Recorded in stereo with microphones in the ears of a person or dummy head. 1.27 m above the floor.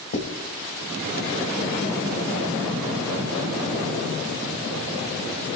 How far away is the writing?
About 4.5 m.